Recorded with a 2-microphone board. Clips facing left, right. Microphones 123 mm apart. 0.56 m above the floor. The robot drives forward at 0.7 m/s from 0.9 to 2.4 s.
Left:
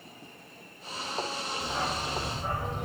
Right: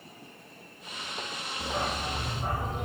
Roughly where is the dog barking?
Right.